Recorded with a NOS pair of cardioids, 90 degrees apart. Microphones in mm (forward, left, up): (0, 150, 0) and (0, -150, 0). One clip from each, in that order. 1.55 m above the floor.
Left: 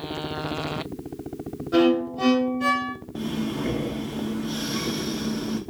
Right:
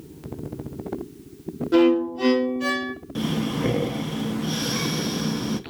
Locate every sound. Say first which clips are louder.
1.7 s a violin: right 2 dB; 25° right, 0.8 m
3.1 s breathing: right 4 dB; 50° right, 0.5 m